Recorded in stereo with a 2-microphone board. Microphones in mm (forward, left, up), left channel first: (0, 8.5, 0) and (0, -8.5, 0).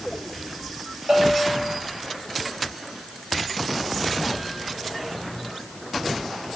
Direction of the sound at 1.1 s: 40° right (ahead or behind).